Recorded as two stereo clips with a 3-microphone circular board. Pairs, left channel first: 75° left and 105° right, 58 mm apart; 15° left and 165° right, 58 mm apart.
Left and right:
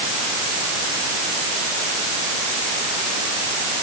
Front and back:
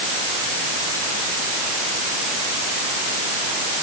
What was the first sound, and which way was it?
Only background noise.